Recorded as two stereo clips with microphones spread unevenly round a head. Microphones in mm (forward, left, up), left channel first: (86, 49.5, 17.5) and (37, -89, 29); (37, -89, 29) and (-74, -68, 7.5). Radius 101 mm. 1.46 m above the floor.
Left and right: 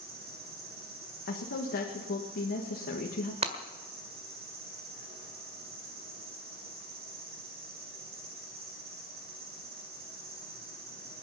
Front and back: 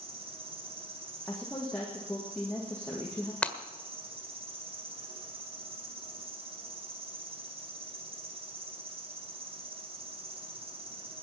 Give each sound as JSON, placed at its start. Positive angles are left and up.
{"t": 0.0, "sound": "an insect", "azimuth_deg": -155, "distance_m": 3.0}
{"t": 1.3, "sound": "a woman speaking", "azimuth_deg": 70, "distance_m": 1.8}
{"t": 3.4, "sound": "breaking glass", "azimuth_deg": -80, "distance_m": 1.8}